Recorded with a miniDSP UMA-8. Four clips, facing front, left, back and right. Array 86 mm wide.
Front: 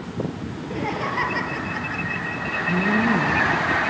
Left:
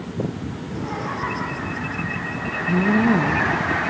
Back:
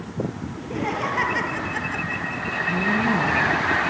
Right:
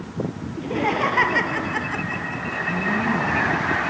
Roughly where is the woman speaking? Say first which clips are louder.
Left 6 dB, front 2 dB; left.